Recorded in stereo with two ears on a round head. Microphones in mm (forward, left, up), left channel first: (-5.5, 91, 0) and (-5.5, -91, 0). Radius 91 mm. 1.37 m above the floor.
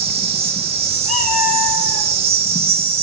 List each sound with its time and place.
0.0 s an insect: 30° right (ahead or behind), 1.8 m
1.1 s a cat meowing: 40° left (ahead or behind), 7 m